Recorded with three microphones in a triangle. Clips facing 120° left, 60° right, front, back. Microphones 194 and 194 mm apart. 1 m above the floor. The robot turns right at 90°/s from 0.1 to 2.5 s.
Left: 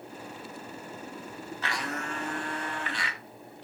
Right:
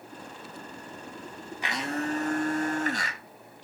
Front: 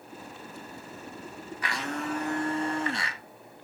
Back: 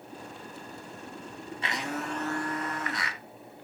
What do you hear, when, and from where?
1.6 s a blender: 130° right, 0.7 m; by 3.2 s 50° right, 0.7 m